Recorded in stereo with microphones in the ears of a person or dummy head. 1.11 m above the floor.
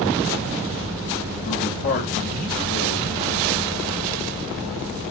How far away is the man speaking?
About 1.5 m.